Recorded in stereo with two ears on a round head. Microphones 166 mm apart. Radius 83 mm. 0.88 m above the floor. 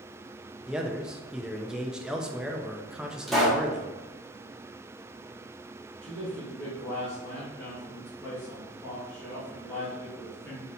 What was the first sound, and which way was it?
A man speaking, 5° right (ahead or behind).